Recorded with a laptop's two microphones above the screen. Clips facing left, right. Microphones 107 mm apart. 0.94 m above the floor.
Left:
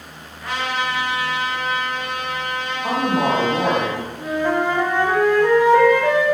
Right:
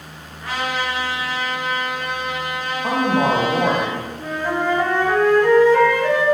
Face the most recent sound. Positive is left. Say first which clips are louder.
# left 3 dB
turn(degrees=15)  # may be behind; listen again after turning